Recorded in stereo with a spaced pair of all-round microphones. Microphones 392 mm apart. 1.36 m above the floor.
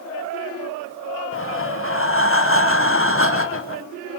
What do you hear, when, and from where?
1.3 s breathing: 35° left (ahead or behind), 1.1 m